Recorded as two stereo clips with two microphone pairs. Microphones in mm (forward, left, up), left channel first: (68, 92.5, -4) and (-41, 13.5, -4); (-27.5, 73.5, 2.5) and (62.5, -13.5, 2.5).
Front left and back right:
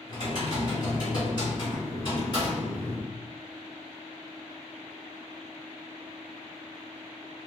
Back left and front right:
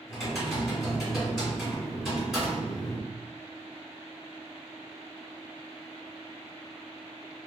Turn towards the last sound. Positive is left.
turn(degrees=45)